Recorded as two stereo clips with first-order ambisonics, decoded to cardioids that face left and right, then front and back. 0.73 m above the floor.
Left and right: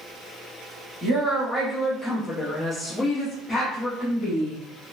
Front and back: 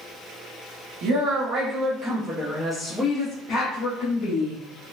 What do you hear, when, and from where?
1.0 s a woman speaking: 165° right, 1.2 m; by 4.6 s 10° left, 1.4 m